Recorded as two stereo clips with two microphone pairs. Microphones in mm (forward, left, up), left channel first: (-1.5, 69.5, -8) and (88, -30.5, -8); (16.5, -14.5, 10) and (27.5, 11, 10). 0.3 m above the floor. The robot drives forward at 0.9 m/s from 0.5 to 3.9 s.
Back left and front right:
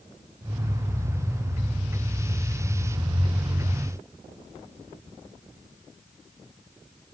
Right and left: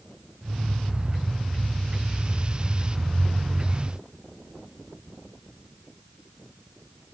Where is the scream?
No scream in this recording.